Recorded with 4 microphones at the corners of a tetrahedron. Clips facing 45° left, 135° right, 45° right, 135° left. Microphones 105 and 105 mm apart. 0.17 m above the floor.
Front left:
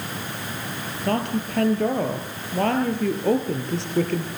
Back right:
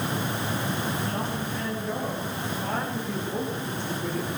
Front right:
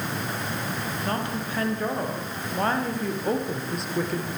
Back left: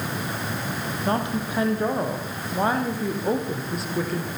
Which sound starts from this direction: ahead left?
A woman speaking, at 1.1 s.